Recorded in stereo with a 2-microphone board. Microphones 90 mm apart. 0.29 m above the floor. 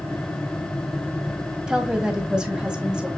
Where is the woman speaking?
10° right (ahead or behind), 1.6 m.